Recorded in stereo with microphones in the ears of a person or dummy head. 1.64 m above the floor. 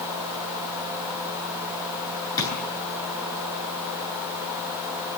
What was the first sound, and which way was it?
A drawer, 20° left (ahead or behind).